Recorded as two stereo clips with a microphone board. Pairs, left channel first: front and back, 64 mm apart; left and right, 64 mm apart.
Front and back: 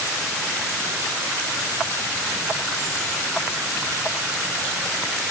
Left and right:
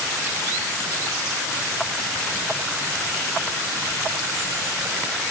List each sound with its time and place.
Only background noise.